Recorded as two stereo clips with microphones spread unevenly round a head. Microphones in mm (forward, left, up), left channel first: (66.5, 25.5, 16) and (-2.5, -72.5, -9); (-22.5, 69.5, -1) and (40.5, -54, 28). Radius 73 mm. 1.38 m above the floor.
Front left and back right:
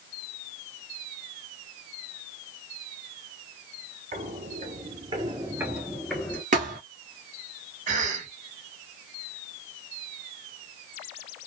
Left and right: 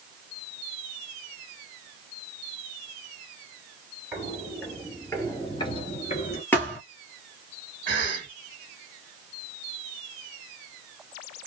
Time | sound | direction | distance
4.1 | footsteps | 135° right | 2 m
6.5 | a thud | 155° right | 2 m
7.9 | a cough | 120° right | 1.9 m